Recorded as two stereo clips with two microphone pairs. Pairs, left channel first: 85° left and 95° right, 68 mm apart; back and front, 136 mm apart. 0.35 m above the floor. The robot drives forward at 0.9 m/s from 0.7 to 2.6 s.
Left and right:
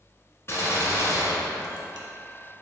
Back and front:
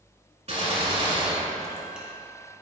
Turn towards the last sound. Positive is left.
turn(degrees=115)